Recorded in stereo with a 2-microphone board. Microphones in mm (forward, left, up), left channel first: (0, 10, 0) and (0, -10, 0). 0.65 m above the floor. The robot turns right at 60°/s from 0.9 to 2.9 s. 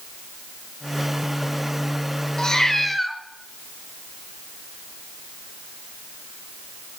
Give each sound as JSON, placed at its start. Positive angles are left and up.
{"t": 2.4, "sound": "a cat meowing", "azimuth_deg": 140, "distance_m": 0.8}